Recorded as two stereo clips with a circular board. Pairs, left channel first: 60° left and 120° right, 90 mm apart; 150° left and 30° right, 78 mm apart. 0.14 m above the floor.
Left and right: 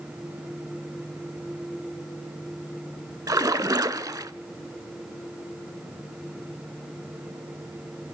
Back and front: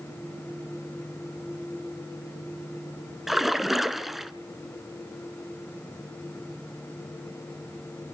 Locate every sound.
3.3 s a splash: 115° right, 0.7 m